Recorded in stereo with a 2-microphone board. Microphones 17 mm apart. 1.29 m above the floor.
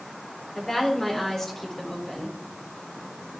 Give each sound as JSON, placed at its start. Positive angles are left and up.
{"t": 0.6, "sound": "a woman speaking", "side_deg": 25, "distance_m": 4.0}